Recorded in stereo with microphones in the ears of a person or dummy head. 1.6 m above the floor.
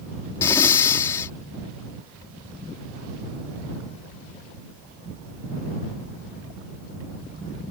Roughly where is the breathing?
Centre.